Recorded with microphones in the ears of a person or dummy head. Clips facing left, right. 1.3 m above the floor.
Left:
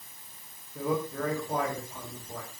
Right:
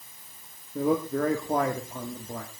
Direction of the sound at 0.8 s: 40° right (ahead or behind).